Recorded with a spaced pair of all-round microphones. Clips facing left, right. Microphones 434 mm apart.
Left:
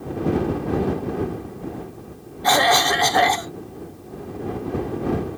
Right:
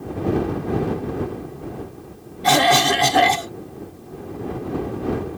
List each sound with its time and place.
2.4 s a cough: 45° right (ahead or behind)